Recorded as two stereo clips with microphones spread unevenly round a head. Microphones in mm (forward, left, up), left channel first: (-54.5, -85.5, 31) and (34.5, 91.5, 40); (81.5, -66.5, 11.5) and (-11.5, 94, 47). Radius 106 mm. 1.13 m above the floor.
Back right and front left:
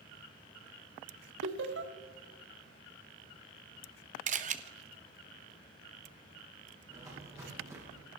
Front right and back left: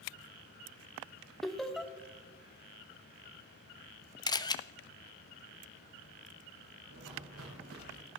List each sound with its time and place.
1.4 s laughter: 30° left, 1.9 m
4.3 s a camera shutter: 10° left, 1.1 m
6.9 s footsteps: 135° left, 8 m; by 8.0 s 140° left, 7.5 m